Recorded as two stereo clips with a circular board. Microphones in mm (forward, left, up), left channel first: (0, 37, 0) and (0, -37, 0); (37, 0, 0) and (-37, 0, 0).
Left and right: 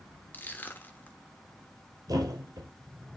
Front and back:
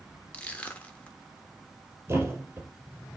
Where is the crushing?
55° left, 1.2 m.